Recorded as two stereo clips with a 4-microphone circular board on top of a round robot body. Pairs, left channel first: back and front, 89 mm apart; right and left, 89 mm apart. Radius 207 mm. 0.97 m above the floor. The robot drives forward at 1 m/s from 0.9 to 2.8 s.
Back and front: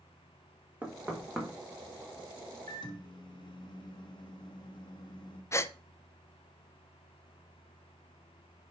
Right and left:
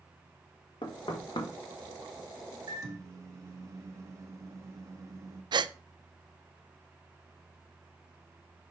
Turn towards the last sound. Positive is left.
turn(degrees=120)